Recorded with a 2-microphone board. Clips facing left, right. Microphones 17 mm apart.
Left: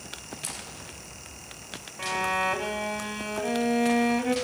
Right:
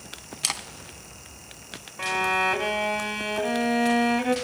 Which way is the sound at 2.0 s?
10° right (ahead or behind).